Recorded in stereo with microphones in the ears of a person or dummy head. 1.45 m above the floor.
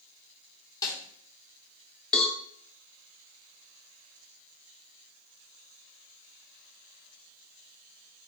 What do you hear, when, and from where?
0.8 s a snare drum: 20° left (ahead or behind), 2.5 m
2.1 s a cowbell: 5° left (ahead or behind), 1.7 m